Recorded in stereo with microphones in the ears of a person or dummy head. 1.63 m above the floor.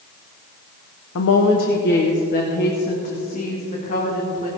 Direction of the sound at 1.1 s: 70° left (ahead or behind).